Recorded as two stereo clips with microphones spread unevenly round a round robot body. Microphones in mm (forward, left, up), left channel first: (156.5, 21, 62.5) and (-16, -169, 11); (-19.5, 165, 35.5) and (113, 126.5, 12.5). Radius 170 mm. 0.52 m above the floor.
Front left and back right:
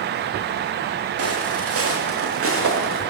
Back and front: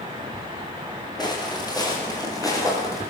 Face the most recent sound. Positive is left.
turn(degrees=-95)